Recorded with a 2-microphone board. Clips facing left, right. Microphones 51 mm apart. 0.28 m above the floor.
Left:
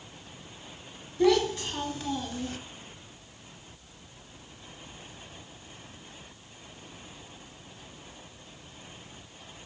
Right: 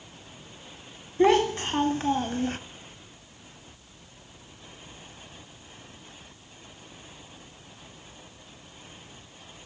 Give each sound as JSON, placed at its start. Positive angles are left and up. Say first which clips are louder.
{"t": 1.2, "sound": "a child speaking", "louder": "right 3 dB", "side_deg": -35, "distance_m": 1.4}